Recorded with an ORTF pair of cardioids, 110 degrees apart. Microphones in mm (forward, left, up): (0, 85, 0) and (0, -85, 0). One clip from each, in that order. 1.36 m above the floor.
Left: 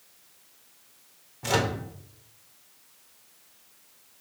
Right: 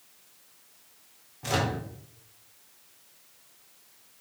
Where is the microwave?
20° left, 0.6 m.